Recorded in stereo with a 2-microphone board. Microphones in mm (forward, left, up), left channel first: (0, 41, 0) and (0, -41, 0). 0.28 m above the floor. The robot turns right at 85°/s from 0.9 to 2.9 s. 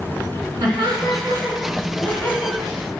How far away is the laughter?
About 3 m.